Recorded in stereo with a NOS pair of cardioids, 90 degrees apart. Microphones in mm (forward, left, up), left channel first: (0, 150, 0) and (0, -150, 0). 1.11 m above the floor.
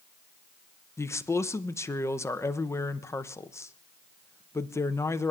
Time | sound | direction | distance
1.0 | a man speaking | 10° left | 0.6 m